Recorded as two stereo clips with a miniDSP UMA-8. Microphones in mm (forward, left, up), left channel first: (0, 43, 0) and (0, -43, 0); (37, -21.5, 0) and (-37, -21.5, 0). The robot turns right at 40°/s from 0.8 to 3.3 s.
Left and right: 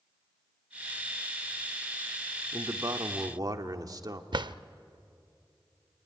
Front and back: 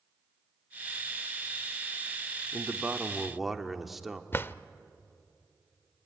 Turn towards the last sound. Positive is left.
turn(degrees=-60)